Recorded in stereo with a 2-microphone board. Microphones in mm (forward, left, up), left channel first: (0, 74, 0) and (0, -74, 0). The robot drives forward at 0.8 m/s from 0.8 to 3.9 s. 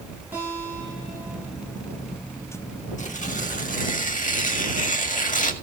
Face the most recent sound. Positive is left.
turn(degrees=60)  # may be behind; listen again after turning